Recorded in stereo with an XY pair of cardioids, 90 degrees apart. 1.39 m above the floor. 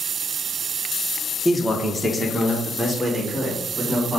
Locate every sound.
1.4 s a man speaking: 10° left, 0.9 m; by 4.2 s straight ahead, 2.5 m